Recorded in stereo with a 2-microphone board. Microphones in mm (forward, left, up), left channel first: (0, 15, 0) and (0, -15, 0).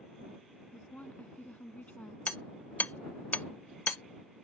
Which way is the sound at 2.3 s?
75° left (ahead or behind).